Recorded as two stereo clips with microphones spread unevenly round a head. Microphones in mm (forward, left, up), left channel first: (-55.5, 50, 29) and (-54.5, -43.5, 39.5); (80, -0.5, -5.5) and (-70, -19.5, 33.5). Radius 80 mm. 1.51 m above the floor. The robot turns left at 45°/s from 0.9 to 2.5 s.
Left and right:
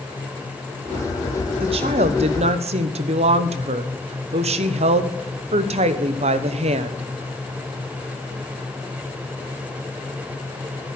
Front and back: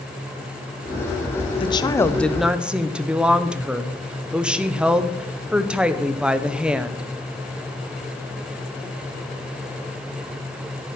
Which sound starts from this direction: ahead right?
A woman speaking, at 1.6 s.